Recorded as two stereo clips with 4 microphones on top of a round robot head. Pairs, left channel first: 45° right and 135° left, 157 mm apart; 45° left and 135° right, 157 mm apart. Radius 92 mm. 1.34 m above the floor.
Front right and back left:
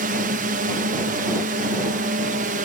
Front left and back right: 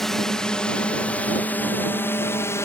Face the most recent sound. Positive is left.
turn(degrees=115)